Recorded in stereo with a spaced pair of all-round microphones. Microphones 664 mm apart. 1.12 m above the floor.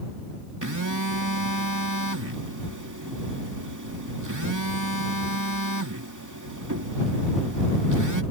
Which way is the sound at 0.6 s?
25° right (ahead or behind).